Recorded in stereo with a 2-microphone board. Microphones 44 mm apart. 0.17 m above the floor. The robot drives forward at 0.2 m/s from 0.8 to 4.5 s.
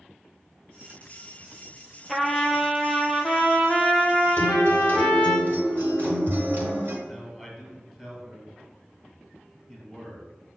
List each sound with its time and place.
2.1 s a trumpet: 5° right (ahead or behind), 0.6 m
4.4 s a guitar: 50° right (ahead or behind), 1.3 m; by 7.0 s 55° right (ahead or behind), 1.2 m
7.0 s a man speaking: 5° right (ahead or behind), 1.0 m